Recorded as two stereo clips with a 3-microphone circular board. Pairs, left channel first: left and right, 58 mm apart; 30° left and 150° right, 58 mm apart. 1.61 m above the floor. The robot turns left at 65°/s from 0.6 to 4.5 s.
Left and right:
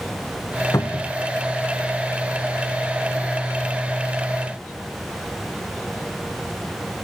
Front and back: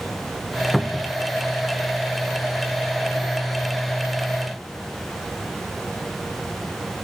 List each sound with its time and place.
0.7 s a cupboard door: 120° left, 0.6 m; by 1.2 s 90° left, 0.6 m